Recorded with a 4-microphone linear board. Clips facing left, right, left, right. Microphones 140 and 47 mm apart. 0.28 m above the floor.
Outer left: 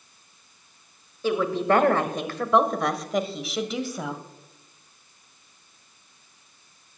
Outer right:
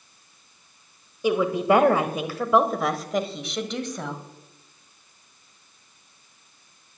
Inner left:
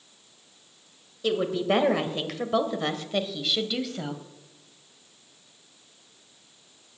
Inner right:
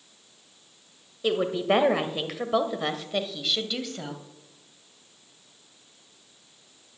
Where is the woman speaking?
15° right (ahead or behind), 1.3 m; by 4.2 s 5° left (ahead or behind), 1.6 m.